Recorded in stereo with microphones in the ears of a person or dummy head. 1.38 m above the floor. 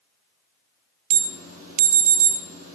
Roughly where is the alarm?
Right.